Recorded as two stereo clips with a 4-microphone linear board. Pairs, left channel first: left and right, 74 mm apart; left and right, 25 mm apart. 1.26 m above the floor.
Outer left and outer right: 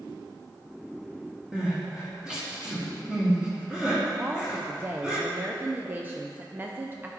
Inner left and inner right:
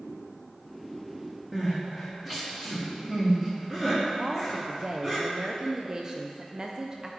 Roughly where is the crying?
Centre.